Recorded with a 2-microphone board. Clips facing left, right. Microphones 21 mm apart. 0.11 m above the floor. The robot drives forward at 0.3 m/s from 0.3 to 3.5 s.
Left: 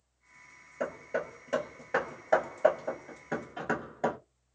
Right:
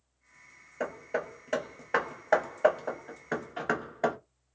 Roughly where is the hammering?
Centre.